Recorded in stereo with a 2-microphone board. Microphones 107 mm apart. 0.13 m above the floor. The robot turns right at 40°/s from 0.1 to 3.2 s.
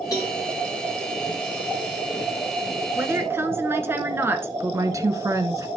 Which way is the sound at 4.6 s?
30° right (ahead or behind).